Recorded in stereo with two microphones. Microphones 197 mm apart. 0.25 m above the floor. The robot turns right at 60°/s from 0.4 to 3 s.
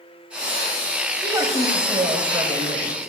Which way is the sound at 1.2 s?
15° right (ahead or behind).